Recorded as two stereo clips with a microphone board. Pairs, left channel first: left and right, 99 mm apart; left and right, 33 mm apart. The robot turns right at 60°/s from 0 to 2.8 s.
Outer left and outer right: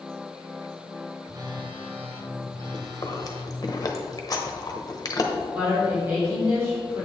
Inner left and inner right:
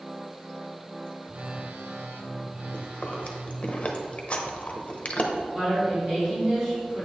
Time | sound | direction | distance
1.3 | a phone buzzing | 145° right | 1.1 m
2.7 | chewing | 35° left (ahead or behind) | 1.0 m
5.5 | a woman speaking | 25° right (ahead or behind) | 2.5 m